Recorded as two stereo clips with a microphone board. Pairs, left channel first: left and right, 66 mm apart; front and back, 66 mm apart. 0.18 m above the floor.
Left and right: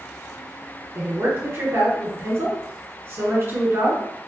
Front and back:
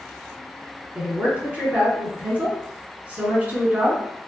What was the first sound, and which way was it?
A woman speaking, 125° right.